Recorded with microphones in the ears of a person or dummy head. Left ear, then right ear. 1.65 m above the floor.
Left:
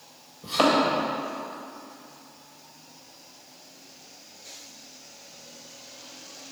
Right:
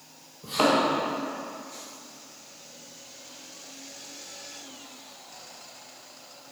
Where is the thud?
5° left (ahead or behind), 1.8 m.